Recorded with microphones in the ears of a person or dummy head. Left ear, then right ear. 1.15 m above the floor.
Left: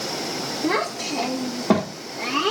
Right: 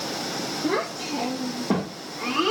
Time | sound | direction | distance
0.6 | a child speaking | 80° left | 1.5 m